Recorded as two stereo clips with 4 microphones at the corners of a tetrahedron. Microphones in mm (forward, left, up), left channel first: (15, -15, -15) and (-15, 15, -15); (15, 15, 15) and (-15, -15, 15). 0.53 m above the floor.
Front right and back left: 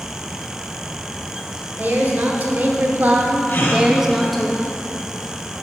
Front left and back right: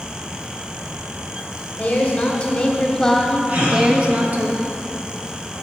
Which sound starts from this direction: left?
A woman speaking, at 1.8 s.